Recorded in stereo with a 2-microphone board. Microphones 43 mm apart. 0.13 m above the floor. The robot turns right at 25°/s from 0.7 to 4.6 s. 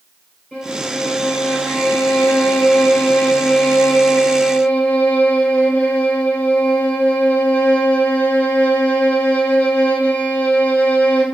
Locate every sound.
0.5 s a violin: 10° right, 1.7 m; by 11.2 s 90° left, 1.7 m